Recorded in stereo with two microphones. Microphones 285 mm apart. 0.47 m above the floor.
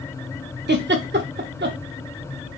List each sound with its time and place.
0.7 s a giggle: 40° right (ahead or behind), 0.5 m